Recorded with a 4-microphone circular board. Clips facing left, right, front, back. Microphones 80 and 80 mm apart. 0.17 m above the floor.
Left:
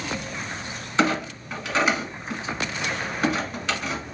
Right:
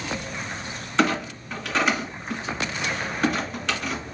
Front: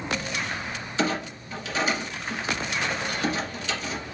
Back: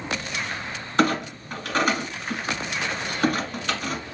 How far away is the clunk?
About 1.2 m.